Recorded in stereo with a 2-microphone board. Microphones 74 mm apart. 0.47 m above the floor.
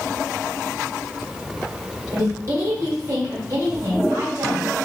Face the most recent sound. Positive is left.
turn(degrees=-45)  # may be behind; listen again after turning